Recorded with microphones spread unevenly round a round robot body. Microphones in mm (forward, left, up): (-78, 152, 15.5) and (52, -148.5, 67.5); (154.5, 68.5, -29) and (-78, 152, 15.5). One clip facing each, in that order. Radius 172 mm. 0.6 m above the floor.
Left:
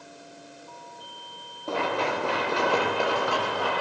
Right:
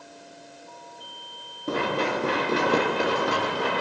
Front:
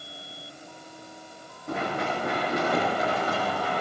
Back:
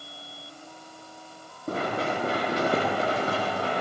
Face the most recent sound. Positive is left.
turn(degrees=-130)